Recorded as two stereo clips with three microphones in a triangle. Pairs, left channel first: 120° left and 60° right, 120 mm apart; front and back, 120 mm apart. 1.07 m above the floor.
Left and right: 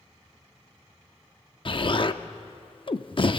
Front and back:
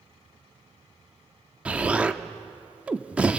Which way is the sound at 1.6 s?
105° left.